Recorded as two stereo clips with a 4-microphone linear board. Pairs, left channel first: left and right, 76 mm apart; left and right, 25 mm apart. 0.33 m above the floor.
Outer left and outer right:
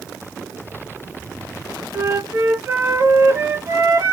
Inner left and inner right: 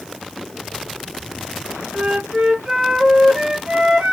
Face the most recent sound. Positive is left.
turn(degrees=-35)  # may be behind; listen again after turning